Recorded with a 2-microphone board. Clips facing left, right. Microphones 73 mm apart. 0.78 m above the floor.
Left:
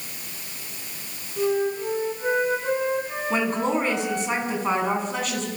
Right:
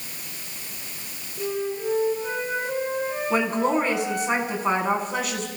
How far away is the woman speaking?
About 6 m.